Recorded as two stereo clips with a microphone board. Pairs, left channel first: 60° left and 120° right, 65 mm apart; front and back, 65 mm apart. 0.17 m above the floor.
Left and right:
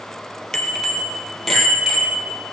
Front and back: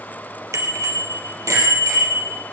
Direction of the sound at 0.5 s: 140° left.